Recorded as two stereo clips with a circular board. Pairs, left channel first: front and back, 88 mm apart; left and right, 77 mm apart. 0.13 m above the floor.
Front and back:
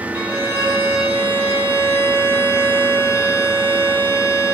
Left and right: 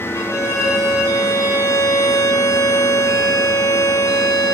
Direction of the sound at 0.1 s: 125° left.